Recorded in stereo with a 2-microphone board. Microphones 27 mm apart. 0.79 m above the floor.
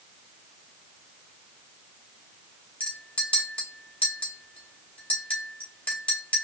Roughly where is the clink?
Left.